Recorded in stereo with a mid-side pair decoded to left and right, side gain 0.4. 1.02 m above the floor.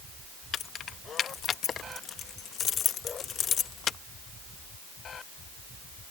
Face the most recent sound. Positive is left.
turn(degrees=65)